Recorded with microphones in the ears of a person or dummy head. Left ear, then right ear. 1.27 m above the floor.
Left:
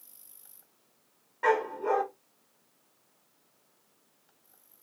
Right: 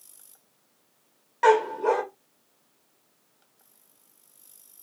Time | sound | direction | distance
1.4 | a dog barking | 35° right (ahead or behind) | 0.9 m